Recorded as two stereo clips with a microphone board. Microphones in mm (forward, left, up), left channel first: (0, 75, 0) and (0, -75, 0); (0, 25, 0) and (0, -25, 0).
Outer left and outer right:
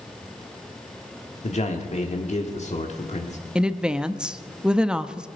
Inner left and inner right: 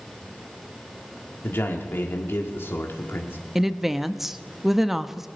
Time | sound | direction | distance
1.4 | a man speaking | 50° left (ahead or behind) | 1.4 m
3.5 | a woman speaking | 5° right (ahead or behind) | 0.6 m